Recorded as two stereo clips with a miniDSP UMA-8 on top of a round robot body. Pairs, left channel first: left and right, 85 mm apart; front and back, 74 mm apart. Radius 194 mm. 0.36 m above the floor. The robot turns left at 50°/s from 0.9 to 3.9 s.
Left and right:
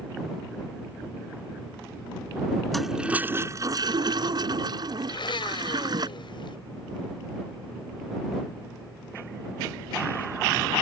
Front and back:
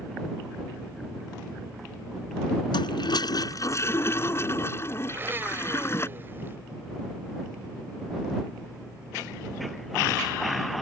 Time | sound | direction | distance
2.7 | a toilet flushing | 5° left | ?
5.1 | a blender | 115° left | ?